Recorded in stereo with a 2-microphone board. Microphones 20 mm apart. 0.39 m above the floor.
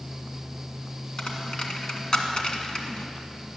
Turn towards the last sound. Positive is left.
turn(degrees=45)  # may be behind; listen again after turning